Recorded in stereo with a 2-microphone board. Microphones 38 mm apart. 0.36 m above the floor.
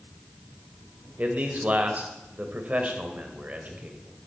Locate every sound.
1.2 s a man speaking: 40° right (ahead or behind), 1.7 m